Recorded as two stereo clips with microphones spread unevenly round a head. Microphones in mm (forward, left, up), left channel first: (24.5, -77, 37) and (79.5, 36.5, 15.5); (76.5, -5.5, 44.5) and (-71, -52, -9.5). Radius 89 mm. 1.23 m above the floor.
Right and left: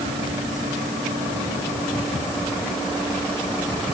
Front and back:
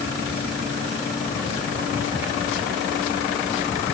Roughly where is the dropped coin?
No dropped coin in this recording.